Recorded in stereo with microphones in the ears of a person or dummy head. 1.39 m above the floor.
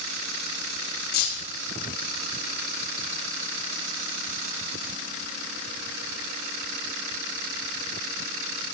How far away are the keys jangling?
About 2.5 m.